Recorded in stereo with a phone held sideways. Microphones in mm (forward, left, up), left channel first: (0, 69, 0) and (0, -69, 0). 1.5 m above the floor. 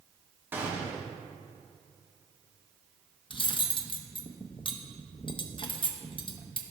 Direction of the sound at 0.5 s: 15° right (ahead or behind).